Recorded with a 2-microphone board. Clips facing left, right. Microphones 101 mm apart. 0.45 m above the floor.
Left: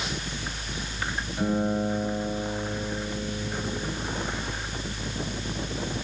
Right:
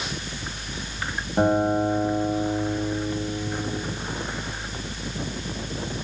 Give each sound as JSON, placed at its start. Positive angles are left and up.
{"t": 1.4, "sound": "a guitar", "side_deg": -55, "distance_m": 3.0}